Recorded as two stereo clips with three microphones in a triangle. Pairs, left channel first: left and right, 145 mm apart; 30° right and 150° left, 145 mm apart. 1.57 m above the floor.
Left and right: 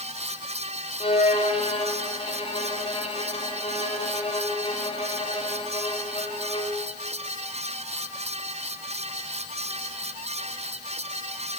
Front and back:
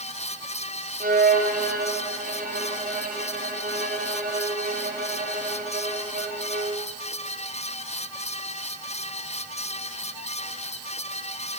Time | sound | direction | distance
1.0 | a violin | 140° left | 3.5 m